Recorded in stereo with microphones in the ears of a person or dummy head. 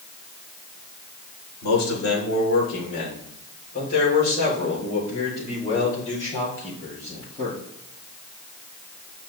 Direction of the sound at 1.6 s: 70° left (ahead or behind).